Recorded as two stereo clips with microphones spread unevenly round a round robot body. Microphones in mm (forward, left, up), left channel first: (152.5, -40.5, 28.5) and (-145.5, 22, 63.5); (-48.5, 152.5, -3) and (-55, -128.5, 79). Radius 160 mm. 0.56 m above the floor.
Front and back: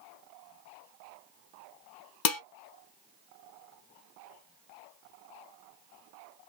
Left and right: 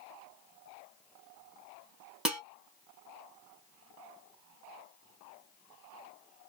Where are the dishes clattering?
Straight ahead, 1.1 m.